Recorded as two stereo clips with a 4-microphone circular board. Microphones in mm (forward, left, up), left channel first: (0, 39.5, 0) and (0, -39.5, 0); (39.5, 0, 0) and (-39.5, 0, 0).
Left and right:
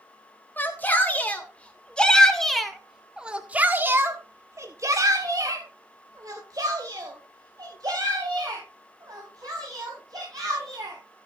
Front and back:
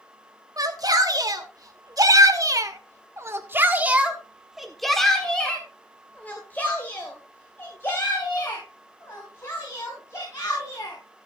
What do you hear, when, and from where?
0.6 s a shout: 150° left, 3 m; by 11.0 s 55° right, 5.5 m